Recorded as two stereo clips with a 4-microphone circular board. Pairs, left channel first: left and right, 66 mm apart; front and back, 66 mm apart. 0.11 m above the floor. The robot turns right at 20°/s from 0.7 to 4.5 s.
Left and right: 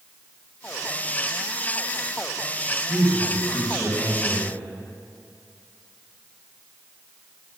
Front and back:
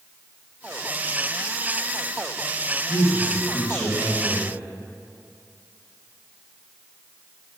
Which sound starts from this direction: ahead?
A man speaking, at 2.9 s.